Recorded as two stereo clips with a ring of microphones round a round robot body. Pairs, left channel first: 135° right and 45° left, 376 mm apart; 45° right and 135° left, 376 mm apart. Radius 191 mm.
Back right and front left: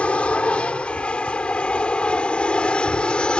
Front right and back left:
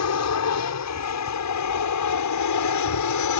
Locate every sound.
0.0 s an aircraft: 50° right